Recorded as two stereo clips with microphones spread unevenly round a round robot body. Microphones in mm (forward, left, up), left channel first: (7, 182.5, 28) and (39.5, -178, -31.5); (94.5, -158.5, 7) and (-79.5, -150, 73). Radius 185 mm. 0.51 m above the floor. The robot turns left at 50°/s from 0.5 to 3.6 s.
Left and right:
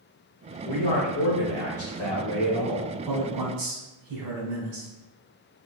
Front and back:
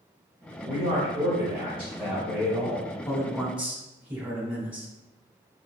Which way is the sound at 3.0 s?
65° right.